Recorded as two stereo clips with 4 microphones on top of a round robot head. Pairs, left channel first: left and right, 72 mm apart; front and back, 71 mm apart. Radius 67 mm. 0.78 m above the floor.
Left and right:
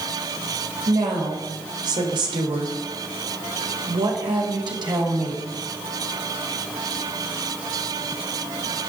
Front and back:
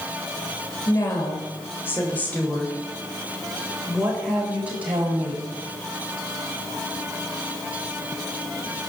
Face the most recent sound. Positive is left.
turn(degrees=-115)